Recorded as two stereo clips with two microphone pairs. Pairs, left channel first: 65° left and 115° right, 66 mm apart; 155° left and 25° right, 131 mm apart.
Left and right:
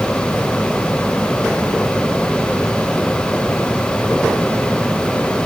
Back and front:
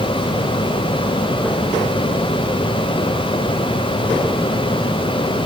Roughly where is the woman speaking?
I don't hear a woman speaking.